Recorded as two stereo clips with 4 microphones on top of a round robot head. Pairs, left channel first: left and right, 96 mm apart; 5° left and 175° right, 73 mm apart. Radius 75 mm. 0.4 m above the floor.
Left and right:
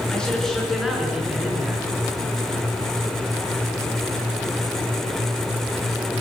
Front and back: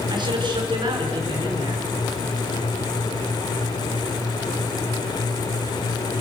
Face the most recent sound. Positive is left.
turn(degrees=-160)